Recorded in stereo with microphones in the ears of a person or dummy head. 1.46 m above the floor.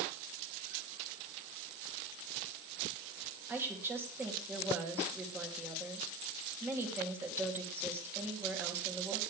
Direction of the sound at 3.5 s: 10° right (ahead or behind).